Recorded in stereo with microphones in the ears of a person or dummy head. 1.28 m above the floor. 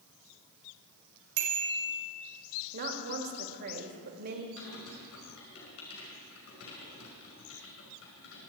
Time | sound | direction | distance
1.4 | a bicycle bell | 85° right | 4 m
2.7 | a woman speaking | 55° right (ahead or behind) | 1.8 m
4.6 | typing on a keyboard | 65° left (ahead or behind) | 5 m